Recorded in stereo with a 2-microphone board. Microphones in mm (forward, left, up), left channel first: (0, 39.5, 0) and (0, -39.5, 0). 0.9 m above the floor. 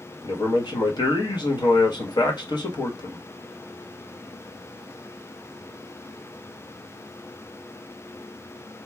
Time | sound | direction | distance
0.2 | a man speaking | 60° left (ahead or behind) | 1.2 m